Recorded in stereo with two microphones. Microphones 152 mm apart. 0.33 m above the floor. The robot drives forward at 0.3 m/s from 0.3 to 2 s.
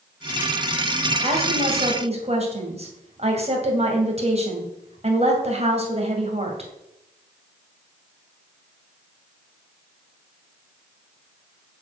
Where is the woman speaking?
40° right (ahead or behind), 2.5 m; by 6.7 s 45° right (ahead or behind), 2 m.